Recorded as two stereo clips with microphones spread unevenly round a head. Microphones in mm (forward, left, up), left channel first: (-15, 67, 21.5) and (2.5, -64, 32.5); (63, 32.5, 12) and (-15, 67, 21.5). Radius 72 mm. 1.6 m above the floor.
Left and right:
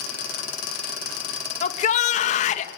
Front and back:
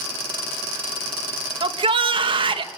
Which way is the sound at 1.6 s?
135° left.